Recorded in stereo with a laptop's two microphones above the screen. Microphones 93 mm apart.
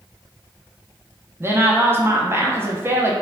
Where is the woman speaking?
25° right (ahead or behind), 0.7 m.